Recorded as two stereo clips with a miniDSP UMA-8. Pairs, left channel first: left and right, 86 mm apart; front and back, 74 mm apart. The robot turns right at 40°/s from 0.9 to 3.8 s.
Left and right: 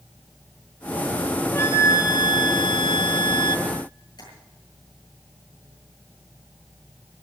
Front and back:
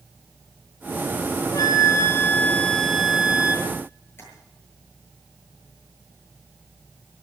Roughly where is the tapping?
Ahead left.